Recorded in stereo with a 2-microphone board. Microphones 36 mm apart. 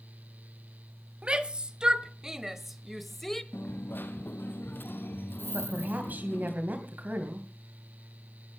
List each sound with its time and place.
1.2 s a shout: 30° right (ahead or behind), 1.7 m; by 3.4 s 10° left (ahead or behind), 1.2 m
3.5 s a dropped coin: 70° left (ahead or behind), 1.1 m
5.5 s a woman speaking: 50° right (ahead or behind), 2.5 m